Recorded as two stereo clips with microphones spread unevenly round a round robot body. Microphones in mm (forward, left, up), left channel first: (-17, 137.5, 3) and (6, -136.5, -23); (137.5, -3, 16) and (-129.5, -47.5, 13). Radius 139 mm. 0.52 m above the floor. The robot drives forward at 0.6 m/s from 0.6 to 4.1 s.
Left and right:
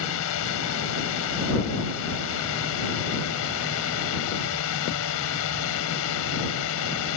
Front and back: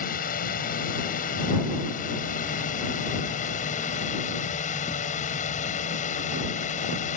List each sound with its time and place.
0.0 s a drone: 70° left